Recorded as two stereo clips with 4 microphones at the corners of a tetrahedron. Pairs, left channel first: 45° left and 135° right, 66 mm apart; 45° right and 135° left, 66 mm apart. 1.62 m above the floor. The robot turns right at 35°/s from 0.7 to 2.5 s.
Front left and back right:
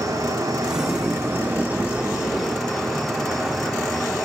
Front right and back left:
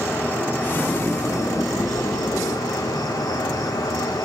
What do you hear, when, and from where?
0.0 s an insect: 105° right, 2.5 m; by 4.2 s 40° right, 2.5 m